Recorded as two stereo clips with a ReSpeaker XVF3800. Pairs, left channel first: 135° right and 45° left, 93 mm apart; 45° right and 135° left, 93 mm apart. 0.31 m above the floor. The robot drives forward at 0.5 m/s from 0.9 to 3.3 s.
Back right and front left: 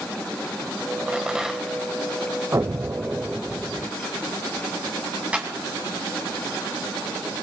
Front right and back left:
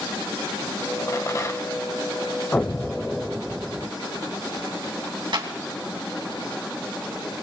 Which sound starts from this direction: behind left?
A clap, at 5.3 s.